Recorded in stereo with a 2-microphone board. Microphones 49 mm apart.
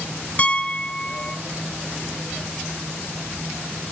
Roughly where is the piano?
Left.